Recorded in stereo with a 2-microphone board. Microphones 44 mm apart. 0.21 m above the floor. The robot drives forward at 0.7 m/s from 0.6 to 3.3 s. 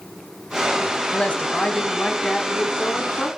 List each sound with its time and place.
1.1 s a woman speaking: 30° left (ahead or behind), 1.1 m; by 3.3 s 20° left (ahead or behind), 1.8 m